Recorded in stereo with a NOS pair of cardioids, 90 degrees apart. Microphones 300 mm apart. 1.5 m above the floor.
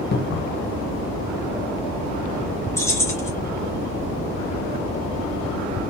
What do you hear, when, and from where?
0.1 s a cupboard door: 35° left, 1.1 m
2.8 s keys jangling: 10° left, 1.7 m